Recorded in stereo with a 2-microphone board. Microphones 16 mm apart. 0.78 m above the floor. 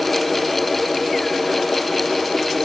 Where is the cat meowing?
I don't hear a cat meowing.